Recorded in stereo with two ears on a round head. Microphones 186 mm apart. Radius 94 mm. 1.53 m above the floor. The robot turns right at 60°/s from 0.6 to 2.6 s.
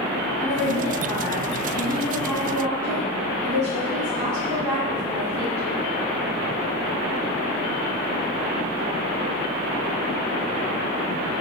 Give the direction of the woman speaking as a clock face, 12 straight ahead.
9 o'clock.